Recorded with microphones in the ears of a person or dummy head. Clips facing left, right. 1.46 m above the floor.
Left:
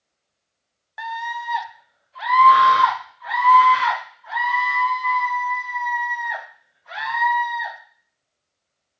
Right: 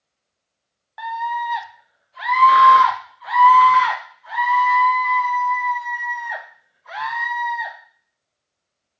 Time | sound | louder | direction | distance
1.0 | a scream | right 5 dB | 25° left (ahead or behind) | 0.7 m